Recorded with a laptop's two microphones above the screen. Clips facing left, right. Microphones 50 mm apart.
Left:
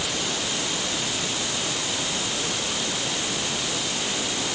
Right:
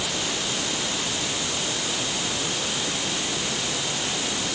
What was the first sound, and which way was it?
Only background noise.